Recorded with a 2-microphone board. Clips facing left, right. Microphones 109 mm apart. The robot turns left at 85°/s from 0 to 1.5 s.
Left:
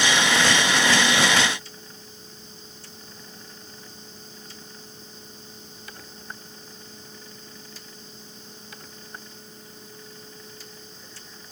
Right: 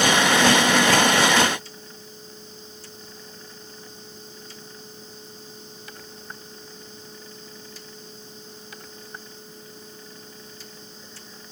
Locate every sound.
Only background noise.